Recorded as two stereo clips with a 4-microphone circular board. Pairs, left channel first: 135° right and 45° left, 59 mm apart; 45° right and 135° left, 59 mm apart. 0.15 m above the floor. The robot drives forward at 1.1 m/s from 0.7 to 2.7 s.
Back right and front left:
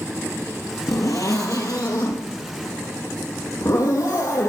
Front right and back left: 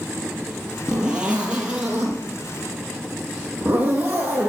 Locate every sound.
0.9 s a zipper: 150° right, 2.5 m; by 4.5 s 165° right, 4.5 m